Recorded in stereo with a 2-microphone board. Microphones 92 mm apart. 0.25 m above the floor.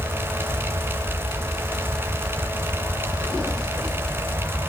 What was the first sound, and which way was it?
Only background noise.